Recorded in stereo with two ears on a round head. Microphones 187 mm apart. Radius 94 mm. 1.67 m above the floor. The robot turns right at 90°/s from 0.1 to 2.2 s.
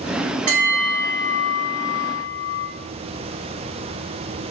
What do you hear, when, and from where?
0.5 s a bell: 35° right, 2 m; by 2.7 s 120° left, 2 m